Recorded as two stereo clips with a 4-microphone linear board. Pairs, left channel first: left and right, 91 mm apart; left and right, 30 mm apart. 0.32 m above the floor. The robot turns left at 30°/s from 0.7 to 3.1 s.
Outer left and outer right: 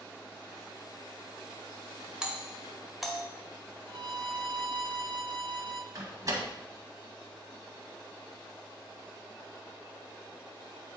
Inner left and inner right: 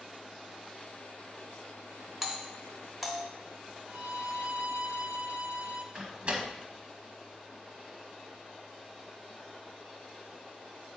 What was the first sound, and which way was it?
A doorbell, 10° right (ahead or behind).